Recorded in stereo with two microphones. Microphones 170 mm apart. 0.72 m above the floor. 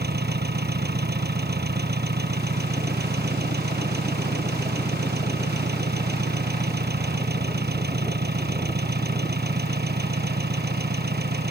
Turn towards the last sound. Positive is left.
turn(degrees=-70)  # may be behind; listen again after turning